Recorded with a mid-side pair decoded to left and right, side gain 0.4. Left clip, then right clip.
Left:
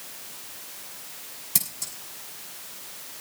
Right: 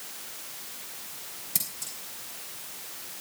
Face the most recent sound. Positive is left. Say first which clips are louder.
# left 4 dB
turn(degrees=40)